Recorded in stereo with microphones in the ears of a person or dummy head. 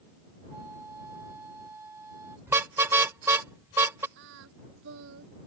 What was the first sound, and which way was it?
A flute, 15° right (ahead or behind).